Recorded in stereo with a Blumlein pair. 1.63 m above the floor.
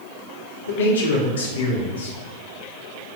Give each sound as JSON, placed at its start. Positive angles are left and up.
{"t": 0.7, "sound": "a man speaking", "azimuth_deg": 65, "distance_m": 1.2}